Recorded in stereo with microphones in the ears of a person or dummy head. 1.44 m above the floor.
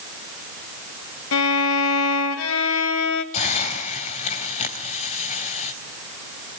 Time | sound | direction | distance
1.3 | a violin | 80° left | 1.6 m
3.3 | a hiss | 40° left (ahead or behind) | 4 m